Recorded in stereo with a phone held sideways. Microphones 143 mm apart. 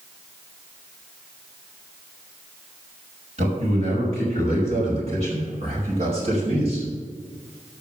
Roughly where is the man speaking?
Right.